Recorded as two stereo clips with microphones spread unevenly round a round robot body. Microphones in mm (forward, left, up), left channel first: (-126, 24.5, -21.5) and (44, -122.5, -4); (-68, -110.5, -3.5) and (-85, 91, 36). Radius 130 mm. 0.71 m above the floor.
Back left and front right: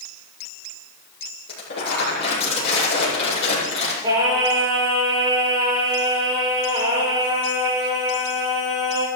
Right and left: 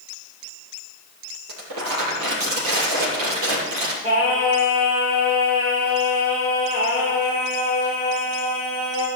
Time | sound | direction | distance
1.5 | crumpling | 85° left | 9.5 m
4.0 | singing | 30° left | 8 m